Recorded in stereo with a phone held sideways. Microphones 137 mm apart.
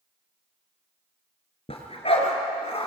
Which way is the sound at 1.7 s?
45° left (ahead or behind).